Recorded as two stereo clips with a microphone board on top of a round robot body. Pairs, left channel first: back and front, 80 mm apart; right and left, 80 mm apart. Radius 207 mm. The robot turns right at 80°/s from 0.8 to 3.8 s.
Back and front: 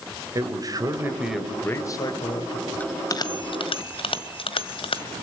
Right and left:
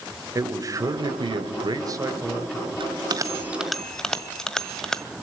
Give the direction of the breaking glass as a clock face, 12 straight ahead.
I don't hear breaking glass.